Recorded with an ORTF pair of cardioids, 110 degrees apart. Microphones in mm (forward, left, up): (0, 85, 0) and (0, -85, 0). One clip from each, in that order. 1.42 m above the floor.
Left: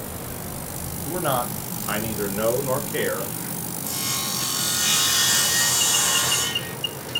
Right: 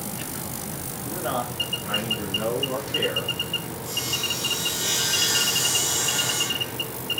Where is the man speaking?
25° left, 1.0 m; by 3.4 s 75° left, 1.6 m.